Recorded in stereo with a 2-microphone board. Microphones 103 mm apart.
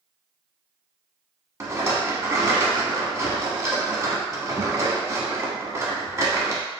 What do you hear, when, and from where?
1.6 s a rattle: 30° right (ahead or behind), 0.6 m